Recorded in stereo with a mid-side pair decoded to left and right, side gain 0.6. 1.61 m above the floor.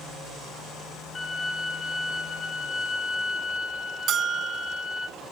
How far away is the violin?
About 4.5 m.